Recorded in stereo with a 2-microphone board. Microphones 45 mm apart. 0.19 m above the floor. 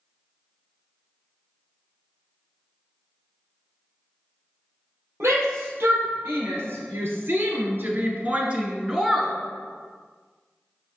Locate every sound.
5.2 s a shout: 70° right (ahead or behind), 4.5 m; by 9.3 s 5° right (ahead or behind), 1.9 m